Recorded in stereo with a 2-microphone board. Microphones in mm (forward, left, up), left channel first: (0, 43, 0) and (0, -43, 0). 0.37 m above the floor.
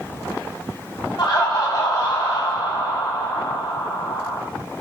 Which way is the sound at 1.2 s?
55° left (ahead or behind).